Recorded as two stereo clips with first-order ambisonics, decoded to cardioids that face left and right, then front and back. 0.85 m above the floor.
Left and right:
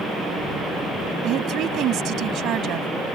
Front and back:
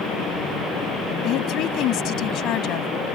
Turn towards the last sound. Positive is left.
turn(degrees=-45)